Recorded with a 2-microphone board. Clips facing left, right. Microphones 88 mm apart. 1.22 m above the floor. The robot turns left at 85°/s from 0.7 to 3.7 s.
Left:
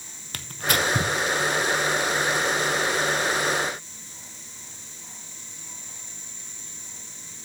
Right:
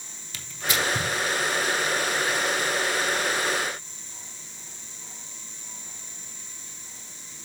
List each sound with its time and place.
0.3 s tearing paper: 55° left (ahead or behind), 0.8 m; by 1.1 s 35° left (ahead or behind), 0.8 m